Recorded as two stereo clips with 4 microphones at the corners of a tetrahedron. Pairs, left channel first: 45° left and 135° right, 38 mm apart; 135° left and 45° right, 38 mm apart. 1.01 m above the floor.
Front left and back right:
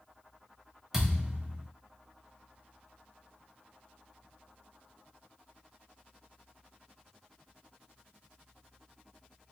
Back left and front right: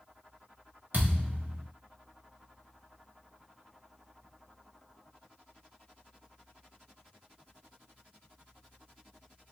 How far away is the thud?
About 1.2 m.